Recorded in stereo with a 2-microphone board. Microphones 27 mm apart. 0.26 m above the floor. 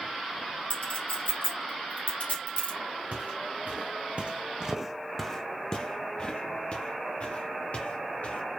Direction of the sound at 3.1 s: 75° right (ahead or behind).